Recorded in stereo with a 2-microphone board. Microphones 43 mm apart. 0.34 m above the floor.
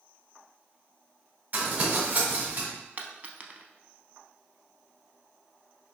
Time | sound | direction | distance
1.5 | crumpling | 45° right (ahead or behind) | 1.6 m
3.0 | a dropped coin | 40° right (ahead or behind) | 0.5 m